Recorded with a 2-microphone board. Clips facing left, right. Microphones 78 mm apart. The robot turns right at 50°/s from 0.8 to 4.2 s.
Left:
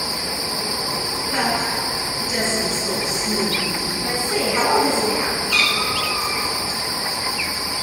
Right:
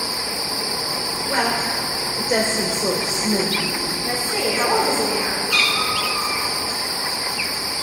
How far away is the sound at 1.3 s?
About 2.5 m.